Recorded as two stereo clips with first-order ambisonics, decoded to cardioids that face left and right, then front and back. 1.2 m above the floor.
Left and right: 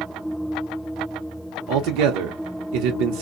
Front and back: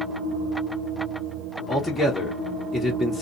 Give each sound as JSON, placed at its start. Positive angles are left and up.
{"t": 1.7, "sound": "a man speaking", "azimuth_deg": -90, "distance_m": 0.7}